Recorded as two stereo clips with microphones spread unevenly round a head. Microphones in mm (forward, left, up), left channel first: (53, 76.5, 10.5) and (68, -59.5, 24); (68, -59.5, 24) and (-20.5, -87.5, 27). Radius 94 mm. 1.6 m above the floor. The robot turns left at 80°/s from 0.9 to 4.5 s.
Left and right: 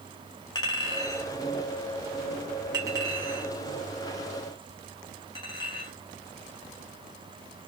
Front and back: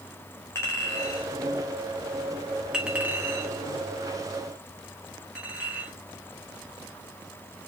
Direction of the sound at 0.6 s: 60° left.